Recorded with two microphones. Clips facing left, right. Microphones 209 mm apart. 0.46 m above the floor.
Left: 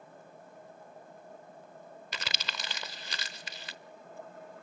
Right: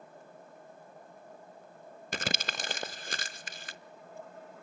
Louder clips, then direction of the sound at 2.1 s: Right 8 dB; 50° right (ahead or behind).